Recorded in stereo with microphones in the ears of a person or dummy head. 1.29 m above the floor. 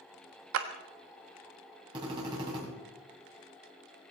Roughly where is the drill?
Right.